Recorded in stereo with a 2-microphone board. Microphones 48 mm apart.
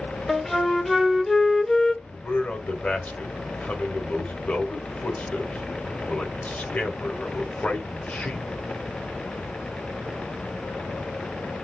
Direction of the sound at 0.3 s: 5° left (ahead or behind).